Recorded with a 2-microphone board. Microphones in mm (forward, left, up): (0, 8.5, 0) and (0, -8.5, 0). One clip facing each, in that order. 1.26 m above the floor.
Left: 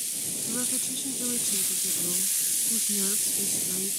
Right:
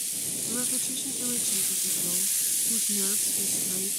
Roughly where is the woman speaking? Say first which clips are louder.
Even; centre.